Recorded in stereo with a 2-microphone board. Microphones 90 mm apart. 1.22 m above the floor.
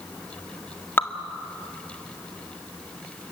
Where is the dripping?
25° left (ahead or behind), 1.8 m.